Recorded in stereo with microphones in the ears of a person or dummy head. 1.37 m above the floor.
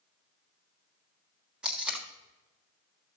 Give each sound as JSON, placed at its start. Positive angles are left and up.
{"t": 1.6, "sound": "tape being pulled", "side_deg": -5, "distance_m": 1.5}